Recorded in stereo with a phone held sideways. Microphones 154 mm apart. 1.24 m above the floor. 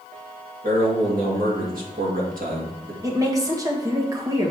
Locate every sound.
0.6 s a man speaking: 65° right (ahead or behind), 2 m
3.0 s a woman speaking: 20° right (ahead or behind), 1.6 m